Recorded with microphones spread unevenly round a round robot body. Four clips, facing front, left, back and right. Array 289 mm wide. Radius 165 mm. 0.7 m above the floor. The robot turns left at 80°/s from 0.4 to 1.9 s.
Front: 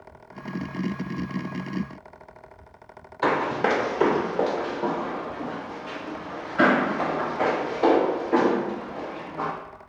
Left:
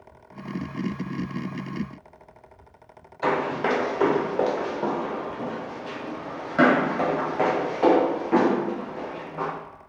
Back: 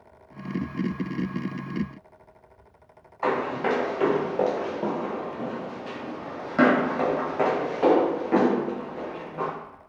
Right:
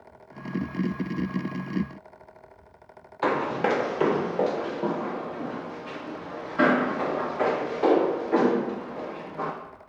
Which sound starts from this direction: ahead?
Running footsteps, at 3.2 s.